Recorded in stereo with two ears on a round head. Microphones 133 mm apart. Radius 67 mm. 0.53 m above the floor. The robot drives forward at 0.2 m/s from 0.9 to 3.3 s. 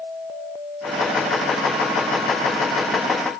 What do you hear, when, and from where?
Only background noise.